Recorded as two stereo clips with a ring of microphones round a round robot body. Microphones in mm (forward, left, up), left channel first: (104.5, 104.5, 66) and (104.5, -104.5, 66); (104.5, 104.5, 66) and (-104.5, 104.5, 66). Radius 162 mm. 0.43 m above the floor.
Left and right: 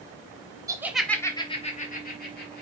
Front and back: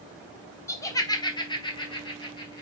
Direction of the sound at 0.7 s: 50° right.